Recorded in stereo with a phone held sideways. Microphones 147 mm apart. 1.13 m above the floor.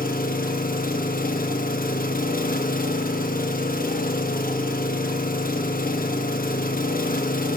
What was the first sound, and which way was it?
An engine running, 75° left (ahead or behind).